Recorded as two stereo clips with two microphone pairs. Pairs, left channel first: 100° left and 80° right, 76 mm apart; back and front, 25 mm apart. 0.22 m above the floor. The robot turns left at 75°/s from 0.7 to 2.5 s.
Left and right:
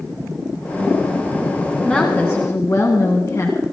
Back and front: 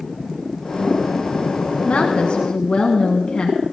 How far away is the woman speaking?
About 1.6 m.